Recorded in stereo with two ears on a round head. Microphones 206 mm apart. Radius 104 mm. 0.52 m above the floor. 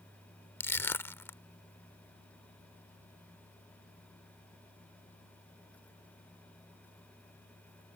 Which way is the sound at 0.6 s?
10° left (ahead or behind).